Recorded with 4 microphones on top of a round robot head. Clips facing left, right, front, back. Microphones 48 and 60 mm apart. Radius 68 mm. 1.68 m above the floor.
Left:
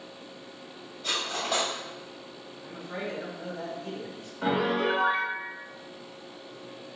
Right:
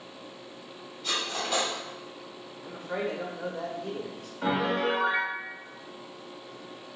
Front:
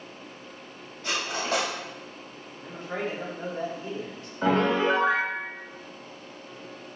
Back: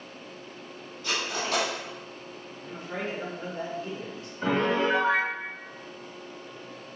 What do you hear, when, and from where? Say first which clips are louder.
1.0 s cutlery clinking: even, front 1 dB; 35° left, 2 m
2.6 s a man speaking: right 4 dB, front 2 dB; 60° right, 1.2 m
4.4 s a piano: left 1 dB, front 2 dB; 5° left, 0.5 m